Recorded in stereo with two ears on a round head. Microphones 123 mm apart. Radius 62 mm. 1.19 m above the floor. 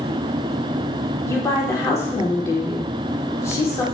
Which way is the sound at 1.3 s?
20° left (ahead or behind).